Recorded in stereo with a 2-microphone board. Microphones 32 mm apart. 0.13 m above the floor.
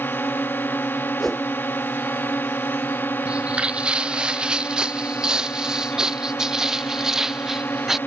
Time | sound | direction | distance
0.0 | a drone | 85° left | ?
1.2 | a whoosh | 5° left (ahead or behind) | ?
3.2 | footsteps | 35° right (ahead or behind) | ?